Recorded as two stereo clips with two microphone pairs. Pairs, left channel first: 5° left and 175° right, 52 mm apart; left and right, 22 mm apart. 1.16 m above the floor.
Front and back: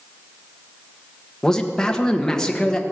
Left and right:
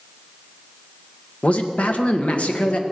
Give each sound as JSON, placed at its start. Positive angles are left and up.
{"t": 1.4, "sound": "a man speaking", "azimuth_deg": 85, "distance_m": 1.6}